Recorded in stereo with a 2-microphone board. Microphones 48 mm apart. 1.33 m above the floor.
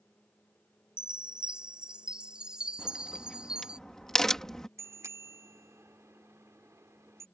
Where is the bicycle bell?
85° right.